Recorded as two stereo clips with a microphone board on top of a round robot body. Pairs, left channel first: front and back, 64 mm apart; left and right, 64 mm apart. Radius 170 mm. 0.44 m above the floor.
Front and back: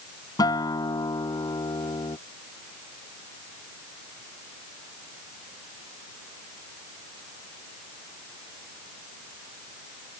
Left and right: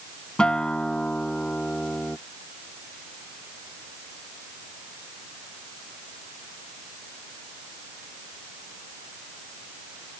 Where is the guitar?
15° left.